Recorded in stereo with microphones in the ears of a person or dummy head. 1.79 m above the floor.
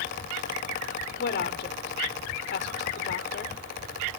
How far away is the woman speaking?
About 0.8 m.